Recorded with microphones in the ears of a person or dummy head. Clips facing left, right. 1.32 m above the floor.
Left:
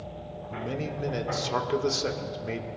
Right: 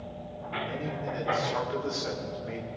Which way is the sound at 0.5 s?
75° left (ahead or behind).